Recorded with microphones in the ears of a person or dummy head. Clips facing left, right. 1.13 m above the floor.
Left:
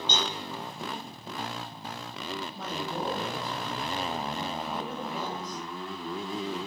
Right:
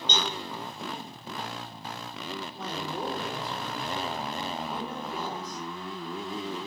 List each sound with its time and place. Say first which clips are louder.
0.1 s a cowbell: right 1 dB; 10° right (ahead or behind), 4.5 m
2.5 s a woman speaking: even; 25° right (ahead or behind), 3.5 m